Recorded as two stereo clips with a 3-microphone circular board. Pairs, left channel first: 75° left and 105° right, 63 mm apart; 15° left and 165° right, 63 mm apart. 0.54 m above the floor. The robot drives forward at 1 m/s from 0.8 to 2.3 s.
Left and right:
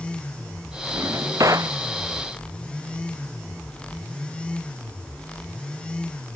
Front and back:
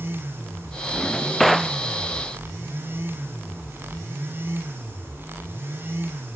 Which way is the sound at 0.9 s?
70° right.